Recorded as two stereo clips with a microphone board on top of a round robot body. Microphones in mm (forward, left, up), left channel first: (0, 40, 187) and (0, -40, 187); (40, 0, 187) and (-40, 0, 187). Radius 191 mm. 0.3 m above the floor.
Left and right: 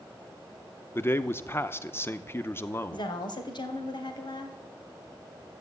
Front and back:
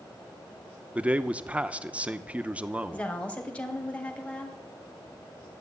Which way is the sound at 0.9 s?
120° left.